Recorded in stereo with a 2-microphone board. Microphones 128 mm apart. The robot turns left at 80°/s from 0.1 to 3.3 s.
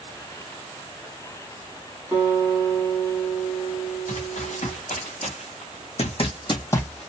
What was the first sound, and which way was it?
A guitar, 150° right.